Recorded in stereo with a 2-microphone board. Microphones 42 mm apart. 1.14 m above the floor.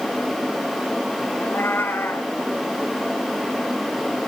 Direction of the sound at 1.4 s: 65° left (ahead or behind).